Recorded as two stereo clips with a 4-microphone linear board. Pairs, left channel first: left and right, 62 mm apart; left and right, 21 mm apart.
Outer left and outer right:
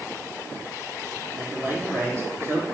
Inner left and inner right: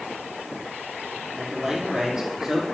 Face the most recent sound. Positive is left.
turn(degrees=-40)  # may be behind; listen again after turning